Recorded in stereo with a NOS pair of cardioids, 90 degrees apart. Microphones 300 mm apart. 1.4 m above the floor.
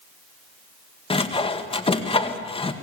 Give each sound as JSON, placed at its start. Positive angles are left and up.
{"t": 1.1, "sound": "sawing", "azimuth_deg": 20, "distance_m": 1.9}